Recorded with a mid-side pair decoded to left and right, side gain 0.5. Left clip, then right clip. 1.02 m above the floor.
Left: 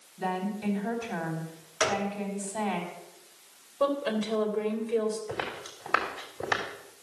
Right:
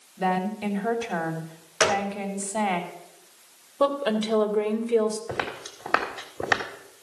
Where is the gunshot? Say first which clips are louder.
Right 5 dB; 50° right, 1.6 m.